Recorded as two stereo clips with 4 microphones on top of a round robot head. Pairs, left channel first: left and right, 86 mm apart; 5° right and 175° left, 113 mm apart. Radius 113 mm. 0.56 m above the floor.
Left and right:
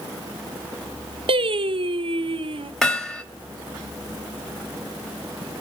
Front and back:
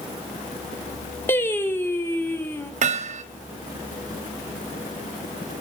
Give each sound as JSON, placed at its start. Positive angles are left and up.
{"t": 1.3, "sound": "singing", "azimuth_deg": -75, "distance_m": 1.0}
{"t": 2.8, "sound": "hammering", "azimuth_deg": 175, "distance_m": 2.0}